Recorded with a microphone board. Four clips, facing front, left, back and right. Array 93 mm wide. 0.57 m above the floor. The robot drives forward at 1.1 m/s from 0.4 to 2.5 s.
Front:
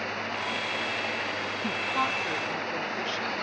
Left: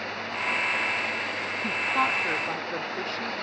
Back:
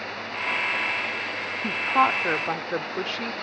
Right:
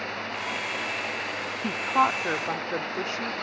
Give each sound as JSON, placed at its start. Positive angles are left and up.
{"t": 1.6, "sound": "a woman speaking", "azimuth_deg": -125}